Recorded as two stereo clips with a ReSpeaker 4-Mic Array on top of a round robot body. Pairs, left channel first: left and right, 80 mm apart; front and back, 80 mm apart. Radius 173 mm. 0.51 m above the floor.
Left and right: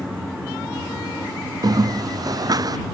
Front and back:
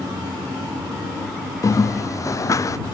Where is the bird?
50° right.